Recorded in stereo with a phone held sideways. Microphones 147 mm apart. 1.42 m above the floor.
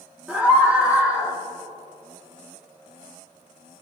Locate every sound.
0.3 s a scream: 10° right (ahead or behind), 3 m